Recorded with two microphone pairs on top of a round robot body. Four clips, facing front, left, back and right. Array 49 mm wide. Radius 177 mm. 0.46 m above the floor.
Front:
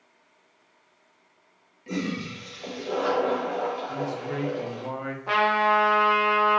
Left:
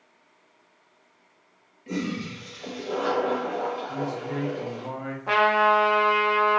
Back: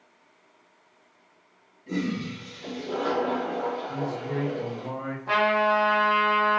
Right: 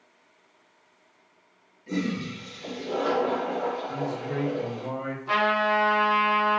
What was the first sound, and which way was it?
A toilet flushing, 35° left.